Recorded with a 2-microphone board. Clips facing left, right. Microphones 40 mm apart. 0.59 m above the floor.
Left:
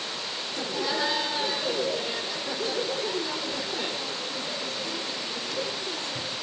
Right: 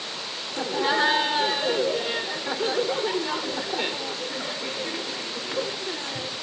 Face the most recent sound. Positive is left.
turn(degrees=-45)  # may be behind; listen again after turning